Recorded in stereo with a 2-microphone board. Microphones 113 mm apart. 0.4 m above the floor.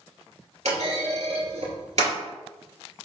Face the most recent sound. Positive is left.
turn(degrees=-70)  # may be behind; listen again after turning